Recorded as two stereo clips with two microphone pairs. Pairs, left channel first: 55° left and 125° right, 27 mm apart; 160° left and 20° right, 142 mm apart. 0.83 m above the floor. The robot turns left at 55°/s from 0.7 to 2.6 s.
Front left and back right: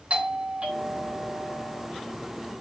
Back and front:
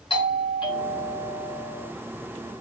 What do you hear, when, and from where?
0.1 s a doorbell: 155° right, 2 m; by 1.9 s 140° left, 2 m